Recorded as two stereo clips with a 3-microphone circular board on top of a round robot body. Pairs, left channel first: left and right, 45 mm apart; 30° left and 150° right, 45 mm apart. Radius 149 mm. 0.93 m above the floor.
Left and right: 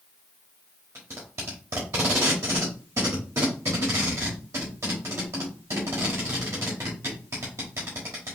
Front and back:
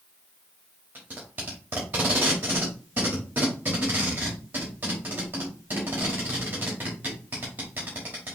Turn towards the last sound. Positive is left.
turn(degrees=-100)